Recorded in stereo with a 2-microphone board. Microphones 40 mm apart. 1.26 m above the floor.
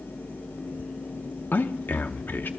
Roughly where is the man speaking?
Left.